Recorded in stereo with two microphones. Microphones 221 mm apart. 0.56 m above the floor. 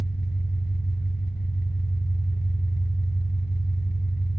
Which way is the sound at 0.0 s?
60° left (ahead or behind).